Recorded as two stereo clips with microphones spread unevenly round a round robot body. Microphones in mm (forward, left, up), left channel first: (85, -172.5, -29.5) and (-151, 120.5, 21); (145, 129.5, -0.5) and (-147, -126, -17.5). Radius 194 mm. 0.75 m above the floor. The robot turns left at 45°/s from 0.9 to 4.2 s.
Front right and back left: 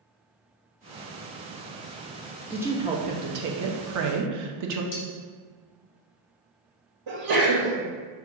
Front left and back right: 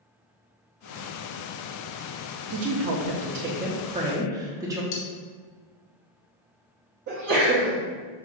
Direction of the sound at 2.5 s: 135° right.